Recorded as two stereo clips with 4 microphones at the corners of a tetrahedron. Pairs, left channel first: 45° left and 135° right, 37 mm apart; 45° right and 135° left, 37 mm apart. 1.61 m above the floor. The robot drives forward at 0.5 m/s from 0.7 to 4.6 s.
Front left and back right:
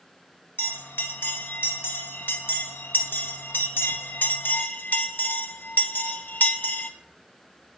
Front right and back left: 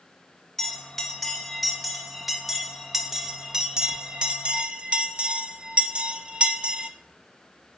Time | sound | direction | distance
0.6 | a bell | 40° left | 3 m